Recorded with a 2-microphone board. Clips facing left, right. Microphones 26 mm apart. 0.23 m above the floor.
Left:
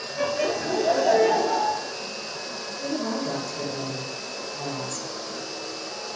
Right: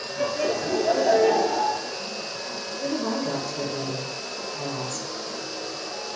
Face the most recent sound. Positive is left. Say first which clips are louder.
# right 1 dB
turn(degrees=-20)  # may be behind; listen again after turning